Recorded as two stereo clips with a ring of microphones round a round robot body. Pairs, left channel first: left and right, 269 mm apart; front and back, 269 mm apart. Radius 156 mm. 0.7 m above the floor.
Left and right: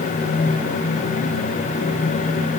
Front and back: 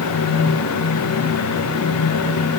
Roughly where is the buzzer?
No buzzer in this recording.